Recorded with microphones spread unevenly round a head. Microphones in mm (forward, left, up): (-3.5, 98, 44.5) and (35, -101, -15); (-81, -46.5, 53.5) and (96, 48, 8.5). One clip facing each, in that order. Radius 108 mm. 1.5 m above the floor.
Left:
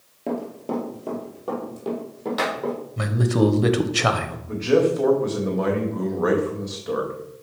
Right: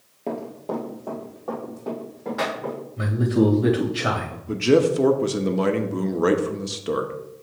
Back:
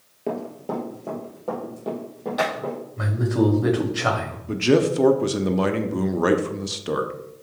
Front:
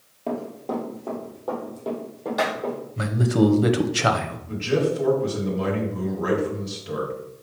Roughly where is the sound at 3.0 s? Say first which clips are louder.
Right 1 dB, front 2 dB; left.